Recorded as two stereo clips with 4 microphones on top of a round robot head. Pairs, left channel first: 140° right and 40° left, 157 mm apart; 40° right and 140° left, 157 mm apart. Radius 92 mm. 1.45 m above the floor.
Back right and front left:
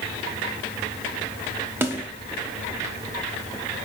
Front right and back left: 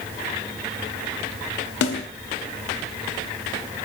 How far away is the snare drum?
About 1.0 m.